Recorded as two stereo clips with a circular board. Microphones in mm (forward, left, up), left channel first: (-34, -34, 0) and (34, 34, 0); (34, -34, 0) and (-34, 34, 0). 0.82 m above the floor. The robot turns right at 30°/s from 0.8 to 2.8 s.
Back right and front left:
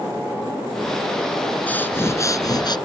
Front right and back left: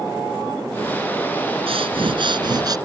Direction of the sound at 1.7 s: 150° left.